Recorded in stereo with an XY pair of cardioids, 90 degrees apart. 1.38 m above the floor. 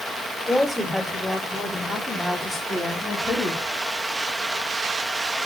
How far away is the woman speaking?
About 5 m.